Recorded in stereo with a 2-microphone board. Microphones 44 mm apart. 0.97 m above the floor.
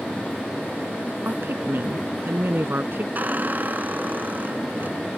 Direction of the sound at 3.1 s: 40° right (ahead or behind).